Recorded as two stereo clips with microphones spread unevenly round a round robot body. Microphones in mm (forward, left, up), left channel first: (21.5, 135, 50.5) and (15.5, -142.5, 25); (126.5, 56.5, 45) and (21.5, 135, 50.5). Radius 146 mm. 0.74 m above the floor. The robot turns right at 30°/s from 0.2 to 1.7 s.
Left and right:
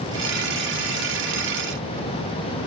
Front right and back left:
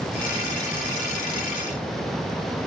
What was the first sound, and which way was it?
Only background noise.